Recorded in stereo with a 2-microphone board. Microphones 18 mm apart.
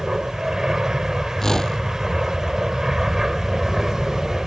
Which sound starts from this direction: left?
A whoosh, at 1.4 s.